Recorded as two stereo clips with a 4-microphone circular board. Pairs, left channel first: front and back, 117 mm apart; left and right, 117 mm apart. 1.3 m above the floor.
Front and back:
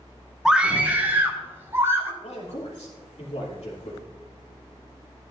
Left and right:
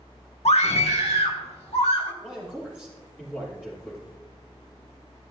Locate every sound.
0.5 s a scream: 95° left, 1.4 m; by 2.1 s 115° left, 3.5 m
2.2 s a man speaking: 15° left, 3 m